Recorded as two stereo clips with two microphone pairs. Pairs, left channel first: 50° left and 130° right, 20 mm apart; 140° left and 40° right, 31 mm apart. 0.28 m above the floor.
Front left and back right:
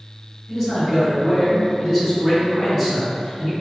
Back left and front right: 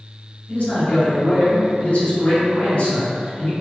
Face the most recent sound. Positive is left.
turn(degrees=140)